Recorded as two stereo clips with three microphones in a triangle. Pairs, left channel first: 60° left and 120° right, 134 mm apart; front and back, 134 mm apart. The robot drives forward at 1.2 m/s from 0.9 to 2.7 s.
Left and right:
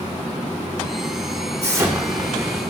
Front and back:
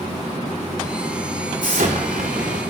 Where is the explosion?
175° left, 2.5 m.